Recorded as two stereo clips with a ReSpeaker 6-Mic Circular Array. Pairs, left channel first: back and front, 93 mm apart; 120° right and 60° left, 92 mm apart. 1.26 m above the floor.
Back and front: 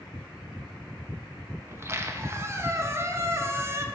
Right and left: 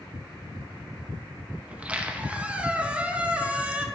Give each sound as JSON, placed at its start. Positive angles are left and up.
{"t": 1.7, "sound": "a squeak", "azimuth_deg": 0, "distance_m": 0.5}